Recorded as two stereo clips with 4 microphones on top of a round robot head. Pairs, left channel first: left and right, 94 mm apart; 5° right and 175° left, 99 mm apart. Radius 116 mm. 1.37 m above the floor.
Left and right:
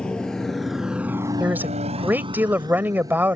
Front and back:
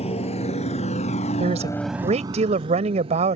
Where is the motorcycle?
10° left; by 3.4 s 145° right.